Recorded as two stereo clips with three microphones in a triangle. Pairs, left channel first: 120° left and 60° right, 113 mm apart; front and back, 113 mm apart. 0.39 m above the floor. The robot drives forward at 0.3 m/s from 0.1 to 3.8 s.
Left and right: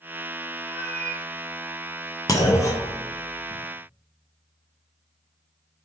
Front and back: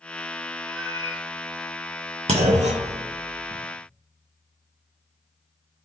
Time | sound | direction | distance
0.6 | a cat meowing | 55° right | 1.8 m
2.3 | a clunk | 175° left | 0.5 m